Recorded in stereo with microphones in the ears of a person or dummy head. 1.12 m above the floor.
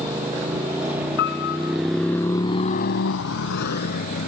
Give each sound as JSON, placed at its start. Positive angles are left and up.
{"t": 0.0, "sound": "a motorcycle", "side_deg": -20}
{"t": 1.2, "sound": "a piano", "side_deg": 55}